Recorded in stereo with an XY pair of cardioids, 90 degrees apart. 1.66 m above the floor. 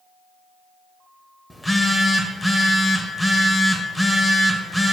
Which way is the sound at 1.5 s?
10° left.